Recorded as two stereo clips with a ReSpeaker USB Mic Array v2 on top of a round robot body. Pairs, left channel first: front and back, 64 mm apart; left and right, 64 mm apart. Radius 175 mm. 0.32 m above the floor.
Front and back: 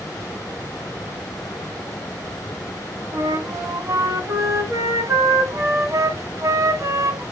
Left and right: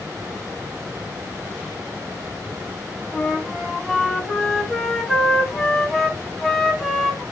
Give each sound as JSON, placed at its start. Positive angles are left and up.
{"t": 3.1, "sound": "a flute", "azimuth_deg": 180, "distance_m": 2.0}